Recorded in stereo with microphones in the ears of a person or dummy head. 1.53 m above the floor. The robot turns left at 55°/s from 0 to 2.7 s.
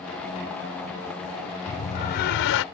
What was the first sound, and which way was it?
A door slam, 150° left.